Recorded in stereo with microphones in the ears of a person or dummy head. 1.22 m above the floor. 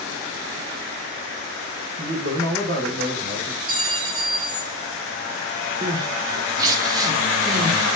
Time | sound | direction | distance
2.0 | a man speaking | 45° right (ahead or behind) | 0.9 m
3.7 | a clink | 25° right (ahead or behind) | 1.2 m
5.8 | crying | 20° right (ahead or behind) | 0.7 m